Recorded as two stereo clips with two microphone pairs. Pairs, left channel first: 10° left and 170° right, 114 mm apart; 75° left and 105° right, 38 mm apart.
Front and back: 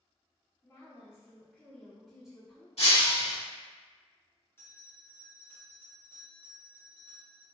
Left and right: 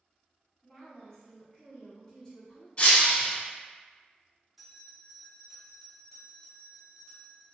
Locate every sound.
0.6 s a woman speaking: 40° left, 1.4 m; by 2.7 s 120° left, 1.3 m
2.8 s breaking glass: 20° left, 0.9 m
4.6 s a bell: 5° right, 0.6 m